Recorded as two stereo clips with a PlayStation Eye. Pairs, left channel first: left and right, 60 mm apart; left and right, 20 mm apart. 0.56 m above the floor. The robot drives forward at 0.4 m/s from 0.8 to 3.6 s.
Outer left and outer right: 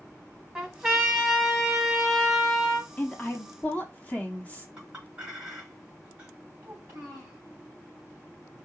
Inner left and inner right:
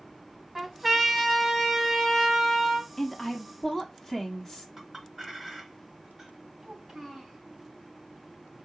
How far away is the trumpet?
About 1.3 m.